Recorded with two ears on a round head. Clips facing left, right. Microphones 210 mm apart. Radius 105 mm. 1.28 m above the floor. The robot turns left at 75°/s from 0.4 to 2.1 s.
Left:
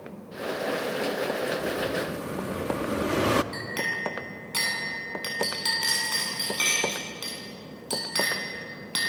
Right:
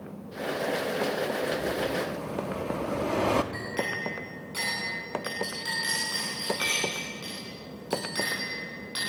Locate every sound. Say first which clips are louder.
1.5 s an explosion: even; 165° right, 0.9 m; by 3.4 s 150° left, 0.9 m
3.5 s a clink: right 2 dB; 70° left (ahead or behind), 9.5 m